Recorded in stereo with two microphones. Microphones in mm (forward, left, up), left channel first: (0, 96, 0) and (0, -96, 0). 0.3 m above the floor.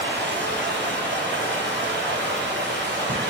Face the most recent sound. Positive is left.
turn(degrees=-70)  # may be behind; listen again after turning